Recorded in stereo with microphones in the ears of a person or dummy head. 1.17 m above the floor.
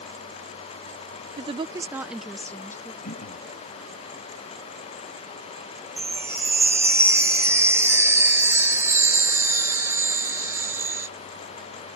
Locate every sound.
1.4 s a woman speaking: 35° right (ahead or behind); by 2.9 s 15° left (ahead or behind)
3.0 s throat clearing: 50° left (ahead or behind)
6.0 s a chime: 10° right (ahead or behind)